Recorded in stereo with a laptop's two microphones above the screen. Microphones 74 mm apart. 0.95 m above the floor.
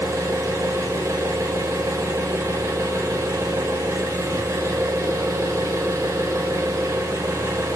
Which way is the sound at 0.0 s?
45° right (ahead or behind).